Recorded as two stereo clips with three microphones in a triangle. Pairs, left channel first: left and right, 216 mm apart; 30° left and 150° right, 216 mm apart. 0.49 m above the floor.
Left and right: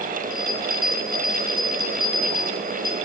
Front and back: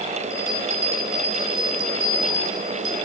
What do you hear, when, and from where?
0.3 s a bell: 50° right, 3 m